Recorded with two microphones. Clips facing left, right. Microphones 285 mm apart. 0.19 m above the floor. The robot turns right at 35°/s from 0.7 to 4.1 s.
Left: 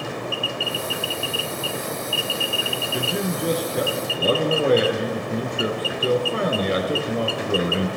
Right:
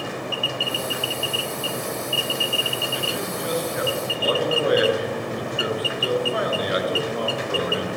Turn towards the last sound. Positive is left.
turn(degrees=145)